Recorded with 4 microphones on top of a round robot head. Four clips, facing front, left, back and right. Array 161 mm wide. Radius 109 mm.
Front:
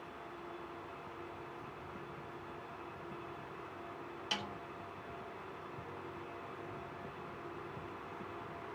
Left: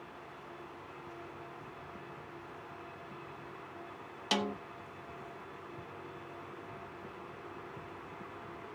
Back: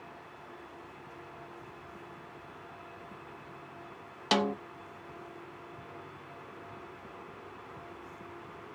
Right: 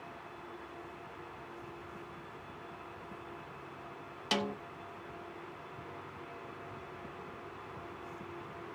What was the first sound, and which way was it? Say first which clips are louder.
A snare drum: left 1 dB, back 16 dB; 175° left.